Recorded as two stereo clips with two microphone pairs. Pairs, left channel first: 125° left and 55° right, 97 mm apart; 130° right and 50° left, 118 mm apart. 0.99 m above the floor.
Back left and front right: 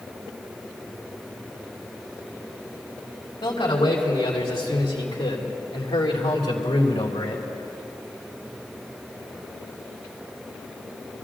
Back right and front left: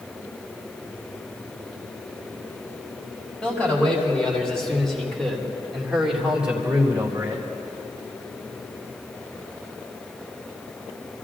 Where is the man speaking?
155° left, 3.5 m; by 7.5 s 120° left, 2.0 m.